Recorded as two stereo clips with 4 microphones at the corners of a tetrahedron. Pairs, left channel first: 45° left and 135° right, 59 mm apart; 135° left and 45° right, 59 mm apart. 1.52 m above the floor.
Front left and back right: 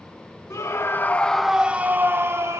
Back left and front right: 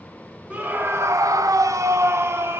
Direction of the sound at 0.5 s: 20° left.